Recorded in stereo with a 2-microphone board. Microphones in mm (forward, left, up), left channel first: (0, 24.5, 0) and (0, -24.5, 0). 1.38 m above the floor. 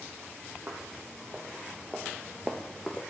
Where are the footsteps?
35° right (ahead or behind), 3 m; by 3.0 s 5° left (ahead or behind), 1.4 m.